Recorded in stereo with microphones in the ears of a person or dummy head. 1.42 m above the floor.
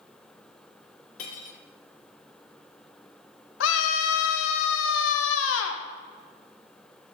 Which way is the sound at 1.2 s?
45° left (ahead or behind).